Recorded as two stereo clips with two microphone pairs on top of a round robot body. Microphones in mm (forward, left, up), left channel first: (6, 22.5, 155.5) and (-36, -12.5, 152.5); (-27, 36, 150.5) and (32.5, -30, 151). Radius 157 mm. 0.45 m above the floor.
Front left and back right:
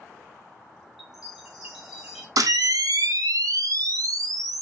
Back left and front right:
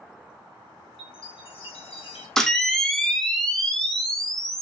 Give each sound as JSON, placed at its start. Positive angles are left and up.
{"t": 1.0, "sound": "a chime", "azimuth_deg": 140, "distance_m": 1.7}
{"t": 2.4, "sound": "a camera shutter", "azimuth_deg": -145, "distance_m": 0.5}